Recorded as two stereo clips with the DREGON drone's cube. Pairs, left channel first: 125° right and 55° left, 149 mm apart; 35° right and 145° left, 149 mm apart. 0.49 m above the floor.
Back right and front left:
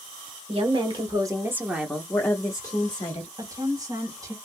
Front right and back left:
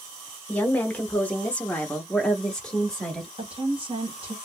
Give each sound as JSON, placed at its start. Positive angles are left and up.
{"t": 0.5, "sound": "a woman speaking", "azimuth_deg": 40, "distance_m": 1.0}
{"t": 3.4, "sound": "a woman speaking", "azimuth_deg": 115, "distance_m": 1.6}